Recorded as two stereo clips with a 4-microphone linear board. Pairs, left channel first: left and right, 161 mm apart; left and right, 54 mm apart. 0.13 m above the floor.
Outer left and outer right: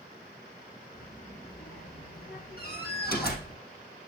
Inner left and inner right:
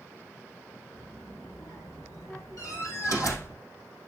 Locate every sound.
0.9 s a child speaking: 75° left (ahead or behind), 6.5 m; by 3.6 s 50° left (ahead or behind), 4 m
2.6 s a door slam: 75° left (ahead or behind), 4 m